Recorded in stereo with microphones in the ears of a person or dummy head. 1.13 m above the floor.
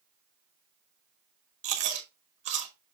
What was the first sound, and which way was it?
Chewing, 35° right (ahead or behind).